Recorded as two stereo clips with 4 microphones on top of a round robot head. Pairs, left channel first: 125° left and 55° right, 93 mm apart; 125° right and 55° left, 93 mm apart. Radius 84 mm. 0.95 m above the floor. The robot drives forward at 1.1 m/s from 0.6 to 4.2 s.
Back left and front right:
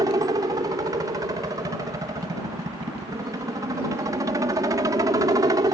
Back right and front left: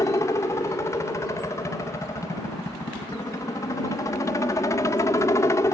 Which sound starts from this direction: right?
A helicopter, at 0.0 s.